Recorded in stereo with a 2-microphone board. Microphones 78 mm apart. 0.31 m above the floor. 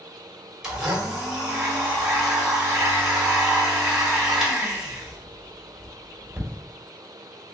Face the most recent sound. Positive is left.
turn(degrees=-5)  # may be behind; listen again after turning